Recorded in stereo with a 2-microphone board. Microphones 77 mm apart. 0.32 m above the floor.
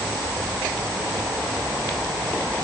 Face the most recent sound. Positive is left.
No sound to turn to.